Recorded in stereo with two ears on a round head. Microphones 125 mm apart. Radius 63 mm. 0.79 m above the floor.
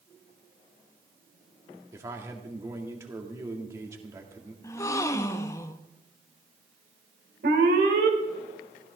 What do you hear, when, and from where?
1.9 s a man speaking: 20° right (ahead or behind), 2.0 m
4.6 s a gasp: 20° left (ahead or behind), 0.6 m
7.4 s an alarm: 70° right (ahead or behind), 3 m